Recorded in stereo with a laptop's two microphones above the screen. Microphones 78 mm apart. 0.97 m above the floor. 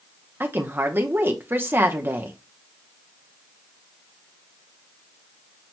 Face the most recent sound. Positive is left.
turn(degrees=-30)  # may be behind; listen again after turning